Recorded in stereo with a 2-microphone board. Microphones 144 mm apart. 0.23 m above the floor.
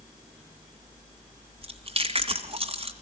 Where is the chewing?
40° right (ahead or behind), 2.0 m.